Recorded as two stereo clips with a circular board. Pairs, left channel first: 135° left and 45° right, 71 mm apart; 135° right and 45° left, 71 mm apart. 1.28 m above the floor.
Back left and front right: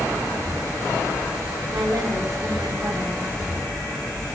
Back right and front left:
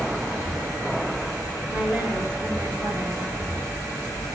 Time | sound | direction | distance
1.7 | a woman speaking | 25° right | 2.5 m